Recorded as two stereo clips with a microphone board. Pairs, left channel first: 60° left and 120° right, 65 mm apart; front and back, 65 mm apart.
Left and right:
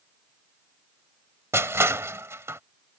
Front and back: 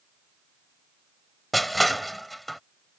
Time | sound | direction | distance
1.5 | crushing | 85° right | ?